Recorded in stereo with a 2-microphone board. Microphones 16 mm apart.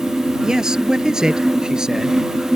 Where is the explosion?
No explosion in this recording.